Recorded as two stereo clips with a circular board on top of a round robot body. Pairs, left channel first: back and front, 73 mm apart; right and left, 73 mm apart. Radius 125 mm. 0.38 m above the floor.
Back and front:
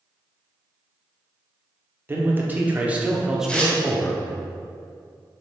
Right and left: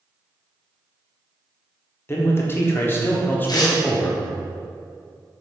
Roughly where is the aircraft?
No aircraft in this recording.